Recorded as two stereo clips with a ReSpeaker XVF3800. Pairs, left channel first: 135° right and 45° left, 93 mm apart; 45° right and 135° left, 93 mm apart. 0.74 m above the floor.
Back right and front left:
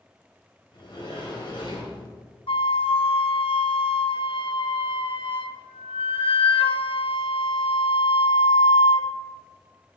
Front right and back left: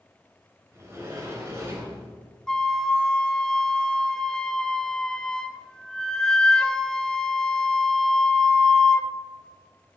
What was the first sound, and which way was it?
A sliding door, 165° right.